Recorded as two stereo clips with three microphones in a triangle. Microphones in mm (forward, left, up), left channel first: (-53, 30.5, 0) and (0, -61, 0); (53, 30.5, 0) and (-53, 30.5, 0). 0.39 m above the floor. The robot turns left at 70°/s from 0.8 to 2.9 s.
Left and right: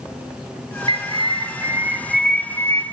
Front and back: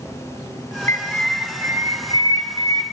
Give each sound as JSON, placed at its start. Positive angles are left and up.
{"t": 0.9, "sound": "a bird", "azimuth_deg": -60, "distance_m": 1.3}